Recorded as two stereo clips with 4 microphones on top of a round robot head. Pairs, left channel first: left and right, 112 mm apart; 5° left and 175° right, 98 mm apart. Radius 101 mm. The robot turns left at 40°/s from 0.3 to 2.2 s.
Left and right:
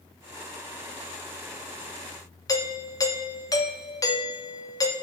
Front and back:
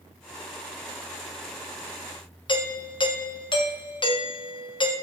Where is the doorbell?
35° left, 1.5 m.